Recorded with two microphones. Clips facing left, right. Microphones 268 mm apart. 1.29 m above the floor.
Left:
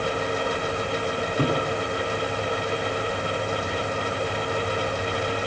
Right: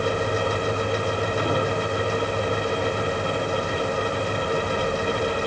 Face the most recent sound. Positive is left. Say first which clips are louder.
# even
turn(degrees=55)  # may be behind; listen again after turning